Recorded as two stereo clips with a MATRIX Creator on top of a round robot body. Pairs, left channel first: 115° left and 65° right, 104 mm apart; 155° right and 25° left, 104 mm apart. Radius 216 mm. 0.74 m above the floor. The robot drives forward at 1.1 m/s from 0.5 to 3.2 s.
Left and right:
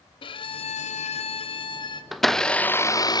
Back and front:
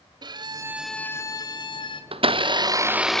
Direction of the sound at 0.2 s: 70° left.